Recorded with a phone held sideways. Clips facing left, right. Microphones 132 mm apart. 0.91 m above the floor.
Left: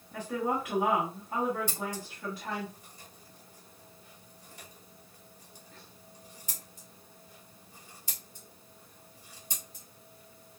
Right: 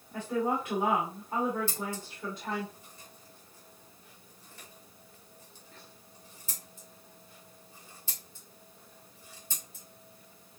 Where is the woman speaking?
5° left (ahead or behind), 2.0 m.